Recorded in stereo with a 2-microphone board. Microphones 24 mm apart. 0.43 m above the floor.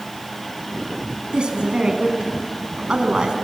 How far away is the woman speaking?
About 3.5 m.